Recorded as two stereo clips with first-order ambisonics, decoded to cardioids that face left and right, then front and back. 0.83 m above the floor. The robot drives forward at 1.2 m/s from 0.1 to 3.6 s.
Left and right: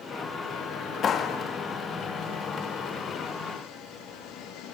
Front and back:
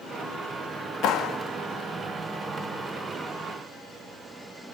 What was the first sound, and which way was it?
A clap, 35° left.